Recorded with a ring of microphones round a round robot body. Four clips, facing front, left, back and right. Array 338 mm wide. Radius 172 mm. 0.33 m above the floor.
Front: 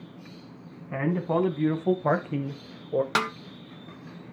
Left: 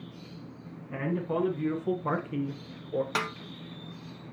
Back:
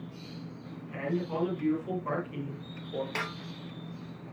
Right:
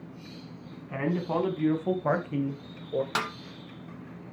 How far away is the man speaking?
About 3.5 m.